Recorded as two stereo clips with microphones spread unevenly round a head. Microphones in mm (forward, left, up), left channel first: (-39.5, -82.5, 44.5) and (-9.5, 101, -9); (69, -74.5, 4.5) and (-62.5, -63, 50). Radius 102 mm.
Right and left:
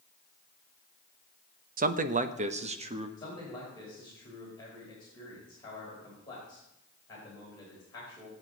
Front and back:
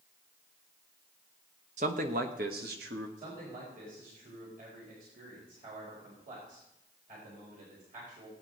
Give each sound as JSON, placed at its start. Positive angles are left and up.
{"t": 1.8, "sound": "a man speaking", "azimuth_deg": 120, "distance_m": 0.9}
{"t": 3.2, "sound": "a man speaking", "azimuth_deg": -170, "distance_m": 4.5}